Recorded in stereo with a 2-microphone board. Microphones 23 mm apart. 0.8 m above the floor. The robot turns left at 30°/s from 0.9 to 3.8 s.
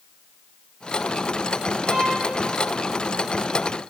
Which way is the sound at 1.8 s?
70° right (ahead or behind).